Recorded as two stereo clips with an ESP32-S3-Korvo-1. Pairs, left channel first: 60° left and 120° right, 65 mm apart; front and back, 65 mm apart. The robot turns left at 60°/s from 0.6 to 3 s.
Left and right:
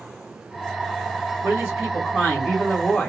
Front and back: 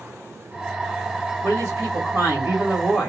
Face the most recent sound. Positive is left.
turn(degrees=100)